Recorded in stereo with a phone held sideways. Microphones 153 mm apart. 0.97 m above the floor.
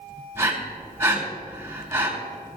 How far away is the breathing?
About 3 m.